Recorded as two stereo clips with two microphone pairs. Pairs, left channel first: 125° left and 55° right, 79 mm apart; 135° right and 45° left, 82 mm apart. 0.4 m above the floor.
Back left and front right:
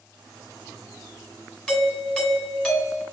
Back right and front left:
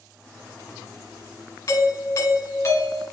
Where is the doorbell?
155° right, 1.4 m.